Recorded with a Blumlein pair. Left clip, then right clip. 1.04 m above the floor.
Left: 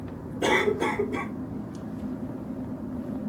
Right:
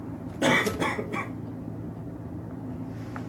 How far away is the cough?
About 1.4 m.